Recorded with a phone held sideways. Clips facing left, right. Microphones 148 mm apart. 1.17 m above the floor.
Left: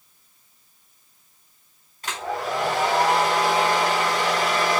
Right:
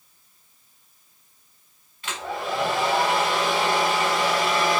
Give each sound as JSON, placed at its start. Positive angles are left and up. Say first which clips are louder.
{"t": 2.0, "sound": "a hair dryer", "louder": "left 2 dB", "side_deg": 40, "distance_m": 4.0}